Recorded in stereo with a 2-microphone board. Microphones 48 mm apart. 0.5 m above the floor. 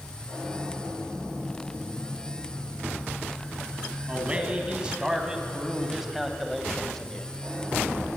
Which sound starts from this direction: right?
A man speaking, at 4.1 s.